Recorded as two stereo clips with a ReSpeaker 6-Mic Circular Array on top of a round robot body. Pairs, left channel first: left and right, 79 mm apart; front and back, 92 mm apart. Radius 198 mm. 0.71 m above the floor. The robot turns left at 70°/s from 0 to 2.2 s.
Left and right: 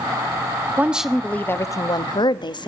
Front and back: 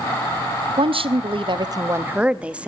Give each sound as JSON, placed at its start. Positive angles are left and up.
{"t": 0.8, "sound": "a woman speaking", "azimuth_deg": -155, "distance_m": 1.2}